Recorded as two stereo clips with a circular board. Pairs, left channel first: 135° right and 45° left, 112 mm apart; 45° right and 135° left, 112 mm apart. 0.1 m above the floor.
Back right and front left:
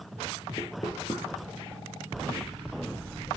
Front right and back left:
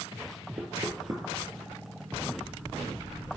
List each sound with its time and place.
0.6 s knocking: 175° right, 1.6 m